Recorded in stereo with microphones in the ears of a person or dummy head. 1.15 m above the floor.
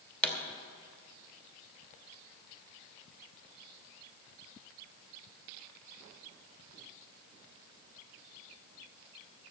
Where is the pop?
15° left (ahead or behind), 2 m.